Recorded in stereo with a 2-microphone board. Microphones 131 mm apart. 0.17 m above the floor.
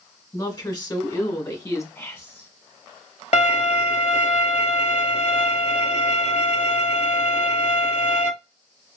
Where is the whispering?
20° left (ahead or behind), 1.9 m.